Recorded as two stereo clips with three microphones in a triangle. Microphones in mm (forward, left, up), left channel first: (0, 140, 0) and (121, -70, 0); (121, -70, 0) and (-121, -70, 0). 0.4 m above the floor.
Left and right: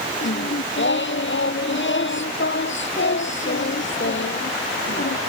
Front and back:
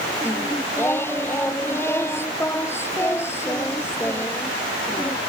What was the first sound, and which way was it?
Singing, 80° left.